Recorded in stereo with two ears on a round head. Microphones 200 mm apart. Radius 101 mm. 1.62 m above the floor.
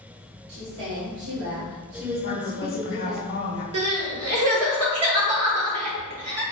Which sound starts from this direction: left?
A woman speaking, at 2.2 s.